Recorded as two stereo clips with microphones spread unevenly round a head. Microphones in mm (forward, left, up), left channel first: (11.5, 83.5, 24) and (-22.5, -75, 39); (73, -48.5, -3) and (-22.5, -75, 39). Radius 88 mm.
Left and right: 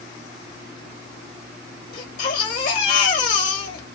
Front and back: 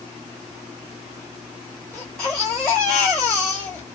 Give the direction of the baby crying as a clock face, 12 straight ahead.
8 o'clock.